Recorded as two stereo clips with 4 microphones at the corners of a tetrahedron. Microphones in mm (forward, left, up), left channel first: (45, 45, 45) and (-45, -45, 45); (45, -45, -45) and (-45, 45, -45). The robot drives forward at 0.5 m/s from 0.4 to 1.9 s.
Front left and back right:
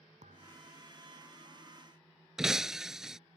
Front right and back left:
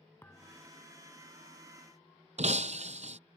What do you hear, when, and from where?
0.2 s a thud: 115° right; by 0.7 s 120° right
2.4 s breaking glass: 140° left